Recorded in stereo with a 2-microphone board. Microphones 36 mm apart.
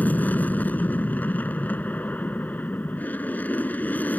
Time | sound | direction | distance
0.0 | an aircraft | 50° left (ahead or behind) | ?